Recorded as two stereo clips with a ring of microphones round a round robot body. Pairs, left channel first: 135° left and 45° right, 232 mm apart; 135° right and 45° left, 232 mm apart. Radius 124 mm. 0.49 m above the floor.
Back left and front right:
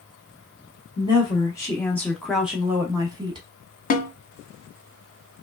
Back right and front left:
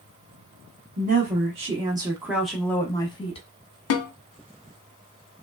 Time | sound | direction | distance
1.0 | a woman speaking | 75° left | 1.1 m
3.9 | a snare drum | 165° right | 0.6 m